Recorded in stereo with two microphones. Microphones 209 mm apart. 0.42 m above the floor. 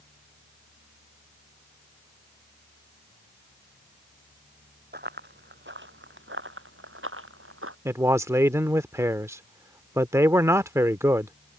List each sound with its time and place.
4.9 s running footsteps: 50° right (ahead or behind); by 7.8 s 80° right
7.8 s a man speaking: 15° right (ahead or behind)